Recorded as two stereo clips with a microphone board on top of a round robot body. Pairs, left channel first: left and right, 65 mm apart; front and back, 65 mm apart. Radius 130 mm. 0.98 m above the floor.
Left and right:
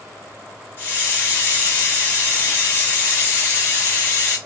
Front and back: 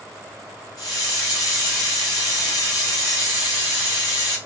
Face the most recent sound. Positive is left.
turn(degrees=30)